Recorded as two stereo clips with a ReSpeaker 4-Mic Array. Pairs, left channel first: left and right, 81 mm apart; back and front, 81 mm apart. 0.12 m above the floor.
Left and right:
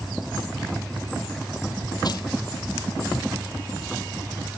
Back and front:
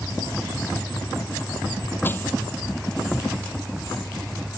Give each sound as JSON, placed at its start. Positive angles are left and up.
{"t": 2.0, "sound": "crushing", "azimuth_deg": 115}